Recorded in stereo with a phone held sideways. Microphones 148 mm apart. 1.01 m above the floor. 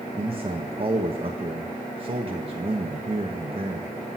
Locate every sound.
0.1 s a man speaking: 40° right (ahead or behind), 1.2 m